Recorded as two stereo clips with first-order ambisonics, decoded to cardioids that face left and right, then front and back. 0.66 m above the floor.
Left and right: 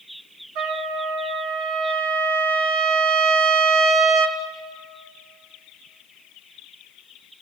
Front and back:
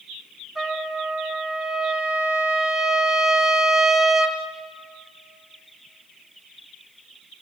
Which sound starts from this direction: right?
A trumpet, at 0.6 s.